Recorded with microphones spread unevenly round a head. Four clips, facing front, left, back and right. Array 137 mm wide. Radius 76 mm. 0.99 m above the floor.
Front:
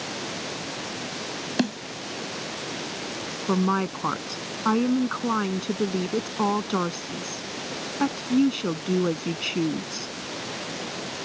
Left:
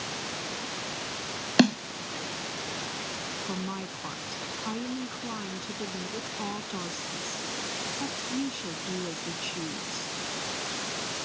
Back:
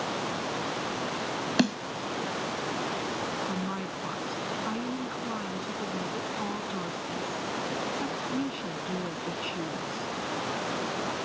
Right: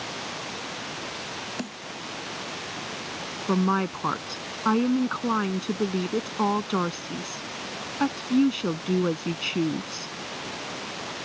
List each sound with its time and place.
1.6 s a snare drum: 65° left
3.5 s a woman speaking: 30° right